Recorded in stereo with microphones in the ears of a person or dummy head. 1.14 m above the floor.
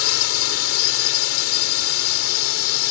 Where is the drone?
75° left (ahead or behind).